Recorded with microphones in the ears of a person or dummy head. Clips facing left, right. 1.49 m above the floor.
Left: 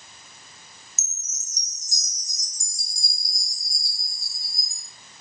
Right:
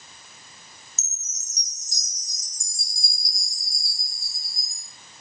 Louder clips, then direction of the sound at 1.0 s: Even; 60° left (ahead or behind).